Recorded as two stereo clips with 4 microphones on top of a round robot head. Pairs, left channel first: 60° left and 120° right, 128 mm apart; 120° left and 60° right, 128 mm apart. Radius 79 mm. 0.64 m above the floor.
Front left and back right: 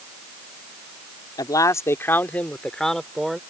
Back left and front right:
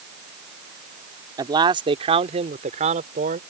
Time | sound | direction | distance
1.4 | a man speaking | straight ahead | ?